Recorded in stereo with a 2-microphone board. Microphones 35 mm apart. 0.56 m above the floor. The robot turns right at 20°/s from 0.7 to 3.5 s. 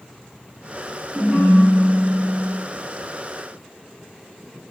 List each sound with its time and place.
1.1 s a ringtone: 15° right (ahead or behind), 1.4 m; by 2.5 s 40° right (ahead or behind), 1.4 m